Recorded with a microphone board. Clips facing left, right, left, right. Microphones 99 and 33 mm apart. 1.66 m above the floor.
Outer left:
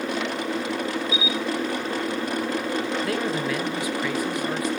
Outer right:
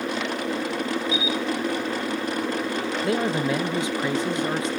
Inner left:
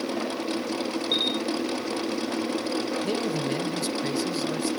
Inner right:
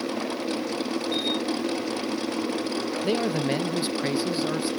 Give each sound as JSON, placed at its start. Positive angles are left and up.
{"t": 1.1, "sound": "a camera shutter", "side_deg": 60, "distance_m": 0.9}
{"t": 3.0, "sound": "a man speaking", "side_deg": -25, "distance_m": 0.5}